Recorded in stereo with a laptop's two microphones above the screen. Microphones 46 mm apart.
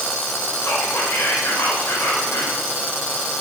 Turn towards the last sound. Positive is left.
turn(degrees=70)  # may be behind; listen again after turning